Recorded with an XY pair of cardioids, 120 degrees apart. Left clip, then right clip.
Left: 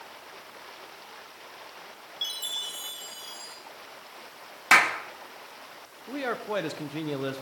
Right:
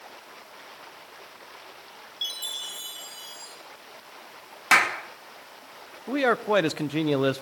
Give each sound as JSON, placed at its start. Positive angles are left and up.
{"t": 2.2, "sound": "a chime", "azimuth_deg": -5, "distance_m": 6.0}
{"t": 4.7, "sound": "a clap", "azimuth_deg": 0, "distance_m": 3.0}
{"t": 6.1, "sound": "a man speaking", "azimuth_deg": -50, "distance_m": 1.3}